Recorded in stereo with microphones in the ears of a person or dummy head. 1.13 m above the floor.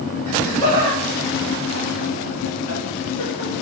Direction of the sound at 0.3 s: 10° left (ahead or behind).